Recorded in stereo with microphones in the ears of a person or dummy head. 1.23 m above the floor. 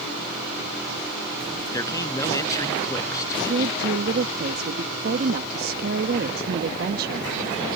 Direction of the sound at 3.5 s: 55° right (ahead or behind).